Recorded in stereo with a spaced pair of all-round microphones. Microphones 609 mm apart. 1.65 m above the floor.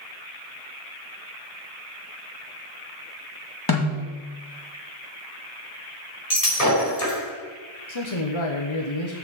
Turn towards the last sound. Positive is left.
turn(degrees=50)  # may be behind; listen again after turning